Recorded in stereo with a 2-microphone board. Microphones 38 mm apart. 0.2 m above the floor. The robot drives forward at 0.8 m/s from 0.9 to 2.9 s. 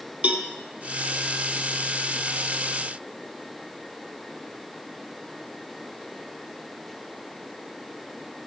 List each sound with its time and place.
0.2 s a cowbell: 40° right (ahead or behind), 0.7 m